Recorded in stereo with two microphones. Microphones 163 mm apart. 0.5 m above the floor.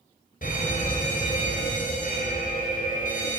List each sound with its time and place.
0.4 s a fire alarm: 60° left (ahead or behind), 4 m